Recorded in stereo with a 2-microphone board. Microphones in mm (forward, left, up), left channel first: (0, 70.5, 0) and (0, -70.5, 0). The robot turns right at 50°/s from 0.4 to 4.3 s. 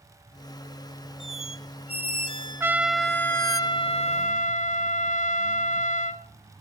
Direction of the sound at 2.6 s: 20° right.